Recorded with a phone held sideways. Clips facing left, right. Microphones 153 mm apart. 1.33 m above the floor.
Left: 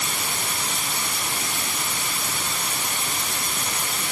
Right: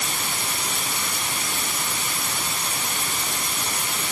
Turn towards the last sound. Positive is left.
No sound to turn to.